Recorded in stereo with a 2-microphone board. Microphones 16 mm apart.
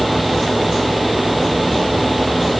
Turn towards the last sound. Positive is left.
No sound to turn to.